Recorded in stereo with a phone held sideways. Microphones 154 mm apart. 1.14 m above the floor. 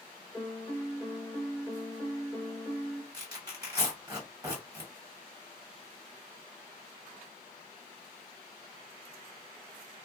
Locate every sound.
0.3 s a piano: centre (ahead or behind), 0.8 m
3.1 s tearing paper: 25° right (ahead or behind), 1.7 m